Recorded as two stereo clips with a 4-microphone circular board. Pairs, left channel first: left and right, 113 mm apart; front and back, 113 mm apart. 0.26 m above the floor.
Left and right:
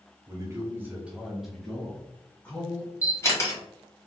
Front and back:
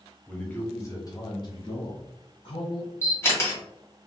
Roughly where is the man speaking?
Right.